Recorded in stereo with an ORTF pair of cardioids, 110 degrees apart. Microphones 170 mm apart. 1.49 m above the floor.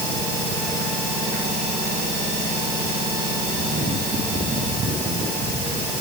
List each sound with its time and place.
Only background noise.